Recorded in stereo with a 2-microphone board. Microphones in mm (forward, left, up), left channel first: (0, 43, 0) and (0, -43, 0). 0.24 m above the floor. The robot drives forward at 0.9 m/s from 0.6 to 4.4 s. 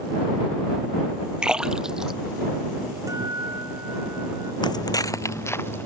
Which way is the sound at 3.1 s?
40° right (ahead or behind).